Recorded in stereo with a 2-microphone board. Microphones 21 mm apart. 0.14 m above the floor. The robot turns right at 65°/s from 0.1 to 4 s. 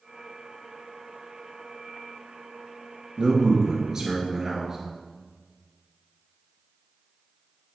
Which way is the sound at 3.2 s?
85° right.